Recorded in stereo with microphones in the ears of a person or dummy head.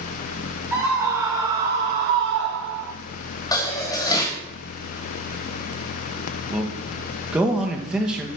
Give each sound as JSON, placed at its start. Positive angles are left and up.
{"t": 0.7, "sound": "a scream", "side_deg": -5, "distance_m": 1.3}
{"t": 3.5, "sound": "dishes clattering", "side_deg": 20, "distance_m": 1.9}
{"t": 6.5, "sound": "a man speaking", "side_deg": -5, "distance_m": 1.4}